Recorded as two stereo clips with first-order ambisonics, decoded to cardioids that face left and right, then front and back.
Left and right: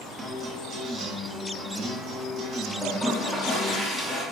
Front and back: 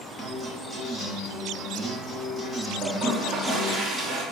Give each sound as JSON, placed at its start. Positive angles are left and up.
{"t": 0.2, "sound": "a guitar", "azimuth_deg": -95, "distance_m": 1.0}
{"t": 2.8, "sound": "a toilet flushing", "azimuth_deg": 180, "distance_m": 0.9}